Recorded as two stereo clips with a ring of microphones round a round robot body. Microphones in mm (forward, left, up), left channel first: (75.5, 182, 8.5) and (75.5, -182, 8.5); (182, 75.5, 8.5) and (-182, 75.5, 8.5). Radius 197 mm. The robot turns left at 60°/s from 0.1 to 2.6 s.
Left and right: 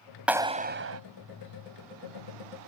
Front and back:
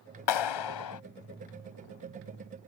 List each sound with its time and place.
0.3 s a clap: straight ahead; by 1.0 s 45° right